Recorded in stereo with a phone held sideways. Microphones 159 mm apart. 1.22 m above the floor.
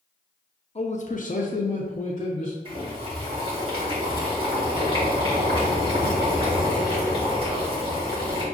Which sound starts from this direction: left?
A man speaking, at 0.8 s.